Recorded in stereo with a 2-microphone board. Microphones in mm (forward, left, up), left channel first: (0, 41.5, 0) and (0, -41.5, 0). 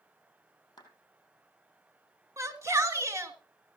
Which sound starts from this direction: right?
A shout, at 2.4 s.